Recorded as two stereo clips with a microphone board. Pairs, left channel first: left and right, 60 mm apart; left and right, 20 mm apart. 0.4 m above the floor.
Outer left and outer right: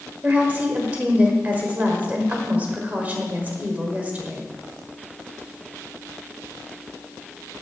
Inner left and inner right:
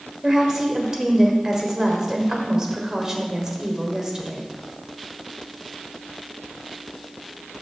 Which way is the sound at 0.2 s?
25° right (ahead or behind).